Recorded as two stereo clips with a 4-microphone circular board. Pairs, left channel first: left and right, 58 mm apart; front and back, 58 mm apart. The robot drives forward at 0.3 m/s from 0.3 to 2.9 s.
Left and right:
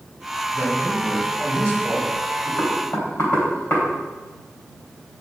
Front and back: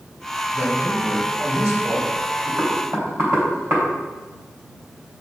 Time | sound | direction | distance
0.5 | a man speaking | 150° right | 3.5 m
2.6 | knocking | 145° left | 2.5 m